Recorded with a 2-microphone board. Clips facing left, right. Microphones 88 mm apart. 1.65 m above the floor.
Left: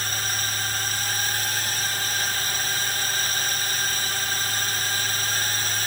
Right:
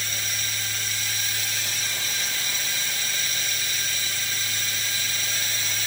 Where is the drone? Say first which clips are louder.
Left 4 dB; 50° left (ahead or behind).